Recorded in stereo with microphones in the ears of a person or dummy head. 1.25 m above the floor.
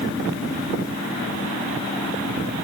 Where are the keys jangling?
No keys jangling in this recording.